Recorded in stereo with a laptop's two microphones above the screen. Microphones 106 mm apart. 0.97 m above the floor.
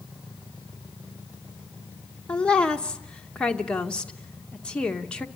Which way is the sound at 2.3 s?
10° left (ahead or behind).